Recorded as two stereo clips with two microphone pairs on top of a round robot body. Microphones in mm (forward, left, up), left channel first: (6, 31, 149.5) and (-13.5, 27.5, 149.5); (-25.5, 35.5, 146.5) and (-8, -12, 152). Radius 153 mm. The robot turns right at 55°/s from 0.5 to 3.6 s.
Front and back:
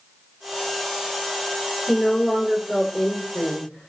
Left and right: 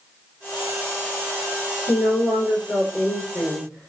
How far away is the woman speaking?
About 1.9 m.